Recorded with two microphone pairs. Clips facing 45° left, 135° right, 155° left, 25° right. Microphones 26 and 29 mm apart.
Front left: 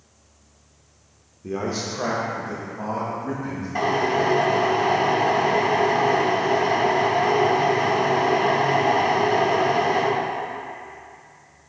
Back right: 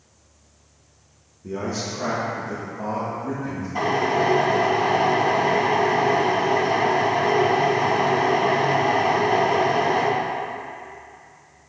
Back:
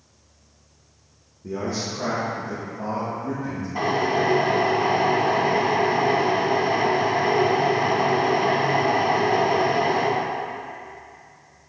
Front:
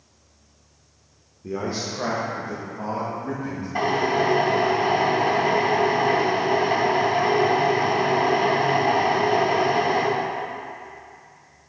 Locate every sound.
1.4 s a man speaking: 20° left, 0.8 m
3.8 s a drill: 15° right, 2.5 m